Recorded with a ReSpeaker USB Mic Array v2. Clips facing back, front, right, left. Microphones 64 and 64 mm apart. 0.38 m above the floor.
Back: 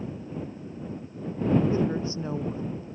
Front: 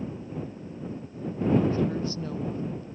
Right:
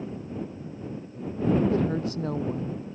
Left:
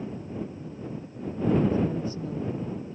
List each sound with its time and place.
1.7 s a woman speaking: 115° right